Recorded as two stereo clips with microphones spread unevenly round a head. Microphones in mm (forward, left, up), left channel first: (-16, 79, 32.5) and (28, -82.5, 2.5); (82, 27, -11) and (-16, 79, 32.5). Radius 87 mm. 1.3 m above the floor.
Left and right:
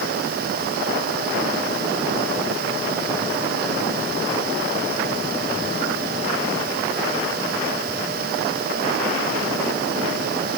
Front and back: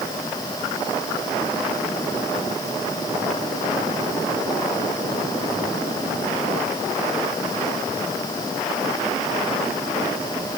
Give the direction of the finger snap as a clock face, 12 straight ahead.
No finger snap in this recording.